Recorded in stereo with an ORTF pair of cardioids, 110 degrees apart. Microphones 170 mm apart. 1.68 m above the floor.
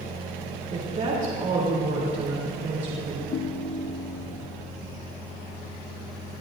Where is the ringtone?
55° left, 1.7 m.